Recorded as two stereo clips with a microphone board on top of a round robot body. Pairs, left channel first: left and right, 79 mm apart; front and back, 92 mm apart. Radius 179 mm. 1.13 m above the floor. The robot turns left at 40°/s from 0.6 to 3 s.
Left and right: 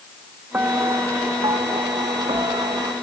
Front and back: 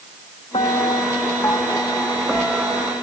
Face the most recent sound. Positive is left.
turn(degrees=-125)